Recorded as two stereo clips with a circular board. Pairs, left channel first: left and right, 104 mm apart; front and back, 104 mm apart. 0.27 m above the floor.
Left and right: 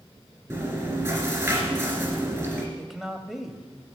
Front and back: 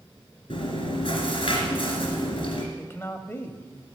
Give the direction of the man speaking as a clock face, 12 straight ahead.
12 o'clock.